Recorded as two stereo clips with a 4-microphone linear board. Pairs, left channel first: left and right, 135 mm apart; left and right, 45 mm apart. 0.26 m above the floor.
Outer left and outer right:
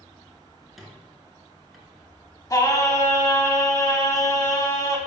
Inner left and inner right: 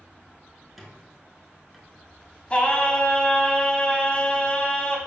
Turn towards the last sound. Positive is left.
turn(degrees=25)  # may be behind; listen again after turning